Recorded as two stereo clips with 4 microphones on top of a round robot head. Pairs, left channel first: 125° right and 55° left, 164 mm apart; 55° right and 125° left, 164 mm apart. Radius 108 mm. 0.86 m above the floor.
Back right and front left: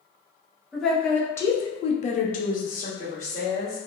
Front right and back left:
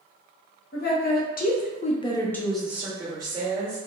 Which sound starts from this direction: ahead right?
A woman speaking, at 0.7 s.